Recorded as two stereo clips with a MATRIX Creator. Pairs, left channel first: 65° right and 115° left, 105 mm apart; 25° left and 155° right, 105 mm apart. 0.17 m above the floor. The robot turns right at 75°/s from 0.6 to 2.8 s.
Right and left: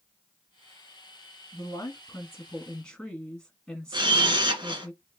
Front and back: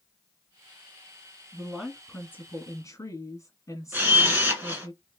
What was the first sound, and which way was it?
A woman speaking, 85° right.